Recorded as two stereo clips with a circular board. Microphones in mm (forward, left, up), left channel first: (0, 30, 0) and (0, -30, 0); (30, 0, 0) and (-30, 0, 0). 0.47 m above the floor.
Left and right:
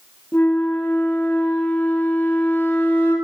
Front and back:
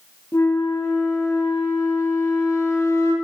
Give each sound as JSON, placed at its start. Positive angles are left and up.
{"t": 0.3, "sound": "a flute", "azimuth_deg": 35, "distance_m": 1.1}